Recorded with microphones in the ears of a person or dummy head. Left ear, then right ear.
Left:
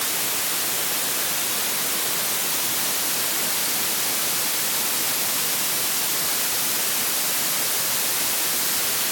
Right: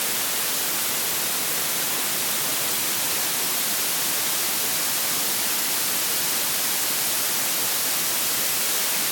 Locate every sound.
Only background noise.